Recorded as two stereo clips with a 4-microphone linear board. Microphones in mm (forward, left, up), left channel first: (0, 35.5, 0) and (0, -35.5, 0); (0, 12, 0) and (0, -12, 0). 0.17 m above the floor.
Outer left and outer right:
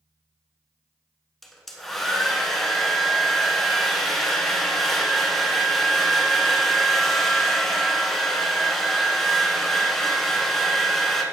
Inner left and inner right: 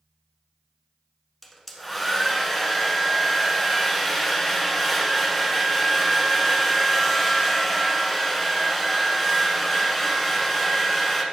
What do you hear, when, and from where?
1.4 s a hair dryer: 5° left (ahead or behind), 1.0 m